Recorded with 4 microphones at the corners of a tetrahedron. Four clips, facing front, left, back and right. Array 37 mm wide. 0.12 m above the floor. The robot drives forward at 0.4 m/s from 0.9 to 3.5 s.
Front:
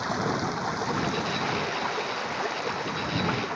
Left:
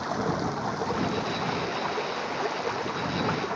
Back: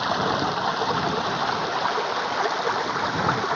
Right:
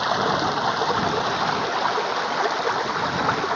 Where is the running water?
120° right; by 3.6 s 130° right.